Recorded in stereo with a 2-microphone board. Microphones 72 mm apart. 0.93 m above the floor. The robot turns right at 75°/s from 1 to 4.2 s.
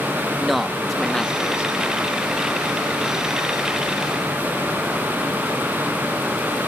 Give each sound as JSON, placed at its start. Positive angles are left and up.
{"t": 0.4, "sound": "a man speaking", "azimuth_deg": 0}